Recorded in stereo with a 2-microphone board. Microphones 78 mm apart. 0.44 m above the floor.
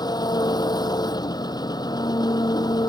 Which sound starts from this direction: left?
An engine running, at 0.0 s.